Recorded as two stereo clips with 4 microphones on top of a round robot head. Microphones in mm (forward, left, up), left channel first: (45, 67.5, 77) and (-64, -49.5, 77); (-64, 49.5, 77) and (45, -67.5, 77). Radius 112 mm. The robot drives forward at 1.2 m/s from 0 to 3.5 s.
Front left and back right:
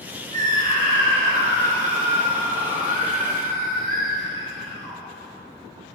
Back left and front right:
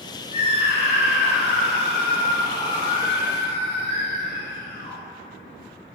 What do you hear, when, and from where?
0.3 s a scream: 175° right, 5 m